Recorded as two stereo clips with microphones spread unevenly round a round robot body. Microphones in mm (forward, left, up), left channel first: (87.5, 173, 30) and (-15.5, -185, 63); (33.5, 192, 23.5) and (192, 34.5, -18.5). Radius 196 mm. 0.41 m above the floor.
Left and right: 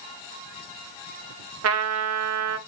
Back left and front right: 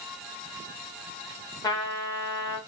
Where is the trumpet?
140° right, 0.6 m.